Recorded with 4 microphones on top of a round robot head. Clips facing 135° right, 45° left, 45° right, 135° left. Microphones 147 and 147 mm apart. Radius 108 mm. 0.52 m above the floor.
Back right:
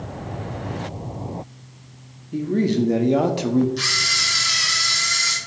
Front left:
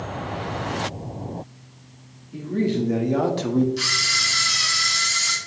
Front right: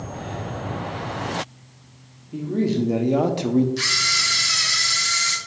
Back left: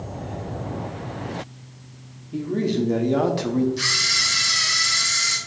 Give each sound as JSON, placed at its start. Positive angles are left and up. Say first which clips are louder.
{"t": 2.3, "sound": "a man speaking", "louder": "back right 3 dB, front right 1 dB", "azimuth_deg": -135, "distance_m": 1.1}
{"t": 3.8, "sound": "a camera shutter", "louder": "even, front right 1 dB", "azimuth_deg": -40, "distance_m": 1.8}